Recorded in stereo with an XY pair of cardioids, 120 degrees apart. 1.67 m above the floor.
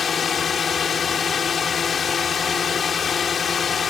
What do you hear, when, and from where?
0.0 s a drone: 35° left